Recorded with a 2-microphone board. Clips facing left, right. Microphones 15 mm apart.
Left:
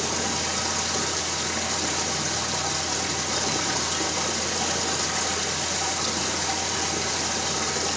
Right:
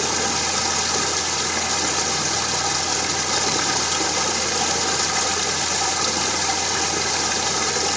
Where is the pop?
I don't hear a pop.